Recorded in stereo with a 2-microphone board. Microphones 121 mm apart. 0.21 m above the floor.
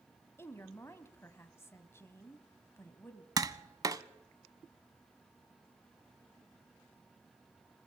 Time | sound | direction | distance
0.4 | a woman speaking | 20° left (ahead or behind) | 1.1 m
3.4 | tapping | 30° right (ahead or behind) | 0.6 m